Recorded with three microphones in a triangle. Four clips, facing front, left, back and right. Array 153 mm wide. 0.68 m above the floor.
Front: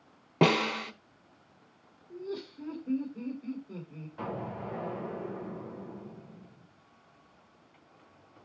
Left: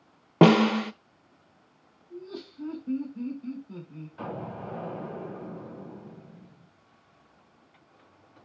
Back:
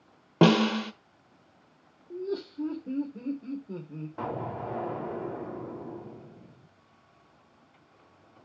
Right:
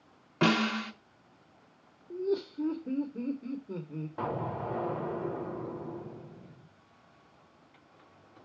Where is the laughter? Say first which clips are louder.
Right 10 dB, back 5 dB; 115° right, 3 m.